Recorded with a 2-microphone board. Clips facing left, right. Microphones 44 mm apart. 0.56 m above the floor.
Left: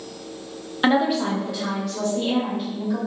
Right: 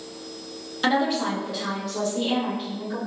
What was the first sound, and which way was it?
A woman speaking, 20° left (ahead or behind).